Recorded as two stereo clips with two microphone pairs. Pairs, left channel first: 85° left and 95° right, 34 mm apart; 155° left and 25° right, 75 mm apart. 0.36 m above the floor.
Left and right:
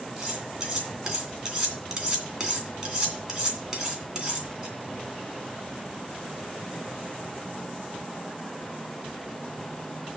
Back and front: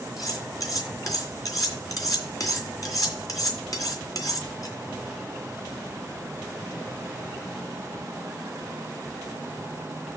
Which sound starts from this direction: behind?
Cutlery clinking, at 0.2 s.